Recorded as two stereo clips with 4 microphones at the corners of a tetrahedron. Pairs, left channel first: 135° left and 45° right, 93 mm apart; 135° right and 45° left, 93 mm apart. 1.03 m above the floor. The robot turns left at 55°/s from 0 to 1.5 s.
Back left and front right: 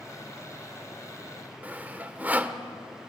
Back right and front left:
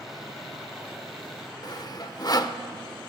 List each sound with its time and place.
1.6 s sawing: 115° right, 0.9 m